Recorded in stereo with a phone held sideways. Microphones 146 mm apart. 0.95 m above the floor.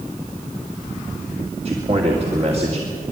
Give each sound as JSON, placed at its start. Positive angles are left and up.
{"t": 1.6, "sound": "a man speaking", "side_deg": -45, "distance_m": 2.5}